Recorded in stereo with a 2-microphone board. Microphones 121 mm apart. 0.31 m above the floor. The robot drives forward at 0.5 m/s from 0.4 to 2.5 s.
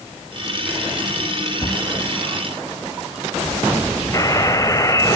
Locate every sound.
1.6 s a cupboard door: 50° left (ahead or behind), 2.5 m; by 1.8 s 45° left (ahead or behind), 2.5 m
4.1 s a buzzer: 30° left (ahead or behind), 1.3 m